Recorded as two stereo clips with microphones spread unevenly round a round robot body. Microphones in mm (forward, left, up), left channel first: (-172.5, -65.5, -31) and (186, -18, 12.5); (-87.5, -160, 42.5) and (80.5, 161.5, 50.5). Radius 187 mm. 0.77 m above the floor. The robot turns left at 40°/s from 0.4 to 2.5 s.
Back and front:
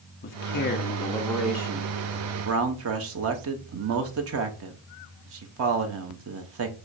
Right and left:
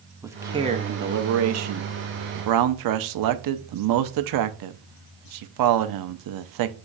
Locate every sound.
0.2 s a man speaking: 145° left, 0.6 m; by 6.7 s 60° left, 0.6 m